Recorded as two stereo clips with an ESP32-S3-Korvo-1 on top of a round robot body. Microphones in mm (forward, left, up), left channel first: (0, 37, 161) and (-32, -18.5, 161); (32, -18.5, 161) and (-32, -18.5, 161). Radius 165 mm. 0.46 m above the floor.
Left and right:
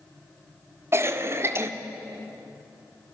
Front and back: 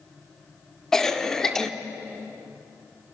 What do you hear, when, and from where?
0.9 s a cough: 80° right, 1.8 m